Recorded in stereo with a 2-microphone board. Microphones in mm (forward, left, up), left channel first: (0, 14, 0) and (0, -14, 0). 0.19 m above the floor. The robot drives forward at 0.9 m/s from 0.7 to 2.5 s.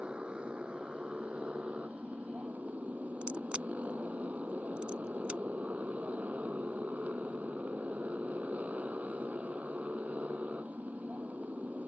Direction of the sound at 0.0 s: 40° right (ahead or behind).